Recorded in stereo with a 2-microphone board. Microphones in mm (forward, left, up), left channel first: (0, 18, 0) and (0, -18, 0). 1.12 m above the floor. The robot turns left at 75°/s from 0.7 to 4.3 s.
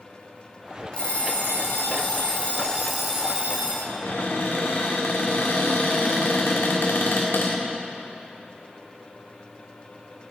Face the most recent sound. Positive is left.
turn(degrees=90)